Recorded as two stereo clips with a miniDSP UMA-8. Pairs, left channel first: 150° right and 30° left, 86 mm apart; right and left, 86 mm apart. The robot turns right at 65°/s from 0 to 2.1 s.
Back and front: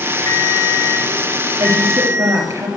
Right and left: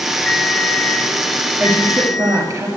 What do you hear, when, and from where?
0.3 s a ringtone: 165° right, 1.4 m; by 2.5 s 45° right, 1.4 m
1.6 s a woman speaking: 35° left, 2.5 m; by 2.7 s 70° left, 2.5 m